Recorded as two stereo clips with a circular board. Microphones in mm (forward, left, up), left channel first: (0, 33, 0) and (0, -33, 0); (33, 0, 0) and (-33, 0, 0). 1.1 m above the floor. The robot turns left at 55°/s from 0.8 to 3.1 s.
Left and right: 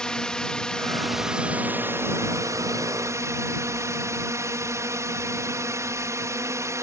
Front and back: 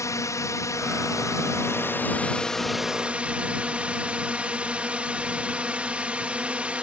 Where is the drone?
15° left; by 6.8 s 110° right.